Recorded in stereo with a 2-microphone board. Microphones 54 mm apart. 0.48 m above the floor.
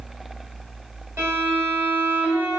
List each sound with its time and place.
1.2 s a violin: 60° right (ahead or behind), 2 m